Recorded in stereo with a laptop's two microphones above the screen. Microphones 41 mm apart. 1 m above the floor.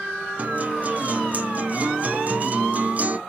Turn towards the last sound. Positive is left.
turn(degrees=-40)  # may be behind; listen again after turning